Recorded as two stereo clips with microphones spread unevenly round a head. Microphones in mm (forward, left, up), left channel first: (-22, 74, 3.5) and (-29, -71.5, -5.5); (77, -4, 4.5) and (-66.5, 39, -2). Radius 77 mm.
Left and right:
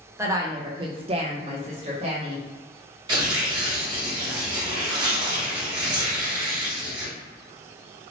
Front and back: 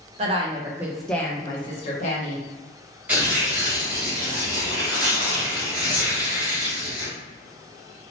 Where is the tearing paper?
125° right, 1.2 m.